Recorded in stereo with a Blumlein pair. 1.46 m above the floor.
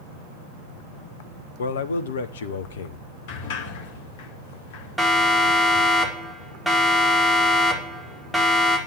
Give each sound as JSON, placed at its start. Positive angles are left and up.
{"t": 1.6, "sound": "a man speaking", "azimuth_deg": 65, "distance_m": 1.5}
{"t": 3.3, "sound": "a sliding door", "azimuth_deg": 50, "distance_m": 2.0}
{"t": 5.0, "sound": "a siren", "azimuth_deg": -5, "distance_m": 4.5}